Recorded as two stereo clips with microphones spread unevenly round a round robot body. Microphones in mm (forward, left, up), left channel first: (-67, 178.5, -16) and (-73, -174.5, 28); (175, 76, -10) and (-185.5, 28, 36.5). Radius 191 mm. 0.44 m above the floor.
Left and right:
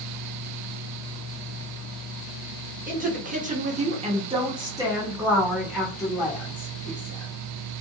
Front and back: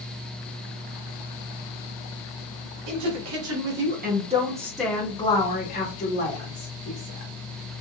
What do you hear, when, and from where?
2.9 s a woman speaking: 155° right, 1.4 m; by 7.3 s 15° left, 1.8 m